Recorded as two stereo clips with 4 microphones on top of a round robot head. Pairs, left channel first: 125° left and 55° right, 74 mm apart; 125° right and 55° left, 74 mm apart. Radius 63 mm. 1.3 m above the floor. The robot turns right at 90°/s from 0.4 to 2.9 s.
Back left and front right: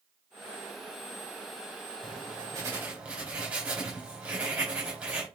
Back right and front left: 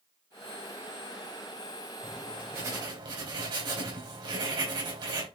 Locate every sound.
2.0 s writing: 55° right, 3.5 m; by 5.3 s 25° left, 3.5 m